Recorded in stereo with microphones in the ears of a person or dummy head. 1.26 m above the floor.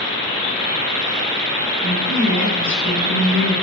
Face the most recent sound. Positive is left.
turn(degrees=-30)  # may be behind; listen again after turning